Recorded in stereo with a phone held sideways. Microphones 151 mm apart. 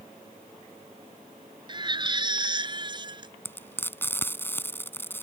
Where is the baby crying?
30° right (ahead or behind).